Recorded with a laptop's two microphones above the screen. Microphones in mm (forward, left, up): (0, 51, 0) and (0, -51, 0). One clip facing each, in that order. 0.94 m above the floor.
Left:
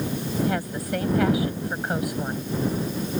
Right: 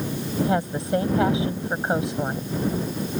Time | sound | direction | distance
0.4 | a woman speaking | 25° right (ahead or behind) | ?